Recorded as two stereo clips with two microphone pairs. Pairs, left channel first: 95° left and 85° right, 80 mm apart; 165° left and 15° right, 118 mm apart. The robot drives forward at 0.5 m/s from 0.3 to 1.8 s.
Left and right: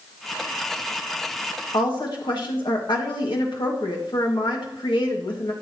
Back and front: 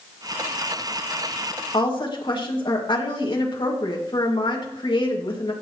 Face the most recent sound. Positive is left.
turn(degrees=115)